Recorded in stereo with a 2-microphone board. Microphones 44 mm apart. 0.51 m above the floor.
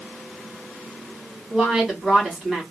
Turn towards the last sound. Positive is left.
turn(degrees=5)  # may be behind; listen again after turning